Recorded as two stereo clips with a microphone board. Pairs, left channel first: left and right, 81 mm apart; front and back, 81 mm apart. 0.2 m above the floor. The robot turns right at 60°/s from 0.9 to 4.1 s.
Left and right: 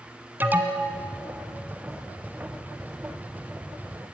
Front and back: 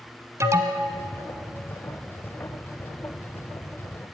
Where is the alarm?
145° right, 1.3 m.